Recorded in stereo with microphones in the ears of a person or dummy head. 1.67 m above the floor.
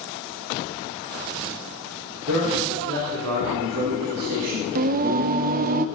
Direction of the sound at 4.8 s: 45° right (ahead or behind).